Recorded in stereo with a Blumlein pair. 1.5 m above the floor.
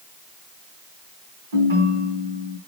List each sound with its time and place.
1.5 s a ringtone: 65° right, 4.5 m